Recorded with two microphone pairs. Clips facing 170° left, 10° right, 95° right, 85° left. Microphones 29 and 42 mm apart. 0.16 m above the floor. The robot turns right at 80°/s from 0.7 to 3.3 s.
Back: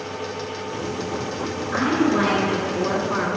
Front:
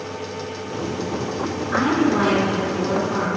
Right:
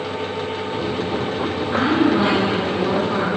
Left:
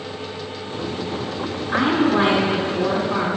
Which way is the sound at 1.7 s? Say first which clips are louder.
Front 1 dB, even; 45° left.